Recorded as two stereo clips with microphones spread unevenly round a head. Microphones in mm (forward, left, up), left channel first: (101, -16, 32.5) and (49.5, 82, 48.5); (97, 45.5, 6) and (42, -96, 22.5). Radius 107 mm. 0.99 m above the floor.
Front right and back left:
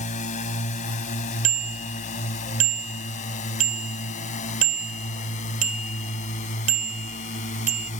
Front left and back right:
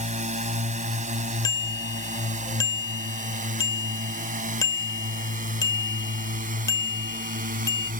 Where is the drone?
70° right; by 8.0 s 85° right.